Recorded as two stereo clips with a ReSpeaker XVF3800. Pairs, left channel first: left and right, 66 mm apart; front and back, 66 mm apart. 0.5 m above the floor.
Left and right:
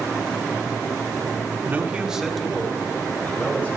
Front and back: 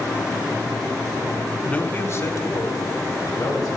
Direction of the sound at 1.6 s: 60° right.